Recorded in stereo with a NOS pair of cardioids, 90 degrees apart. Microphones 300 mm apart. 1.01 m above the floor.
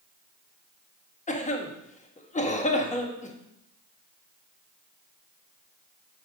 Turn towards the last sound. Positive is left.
turn(degrees=25)